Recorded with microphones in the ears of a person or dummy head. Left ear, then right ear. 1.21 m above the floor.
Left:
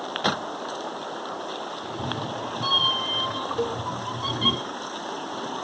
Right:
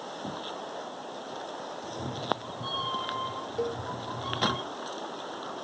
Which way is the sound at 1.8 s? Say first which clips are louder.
Right 1 dB; 55° left (ahead or behind).